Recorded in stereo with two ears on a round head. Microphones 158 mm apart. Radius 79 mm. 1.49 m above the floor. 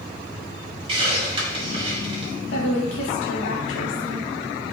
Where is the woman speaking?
80° left, 2.5 m.